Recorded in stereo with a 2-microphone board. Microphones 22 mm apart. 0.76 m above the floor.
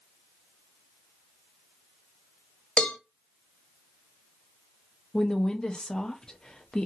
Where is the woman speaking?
35° left (ahead or behind), 0.5 m.